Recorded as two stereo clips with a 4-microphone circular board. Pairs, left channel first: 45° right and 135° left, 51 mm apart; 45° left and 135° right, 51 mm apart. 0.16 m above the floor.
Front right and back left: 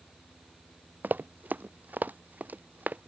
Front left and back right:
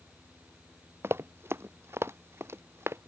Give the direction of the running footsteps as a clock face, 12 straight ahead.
6 o'clock.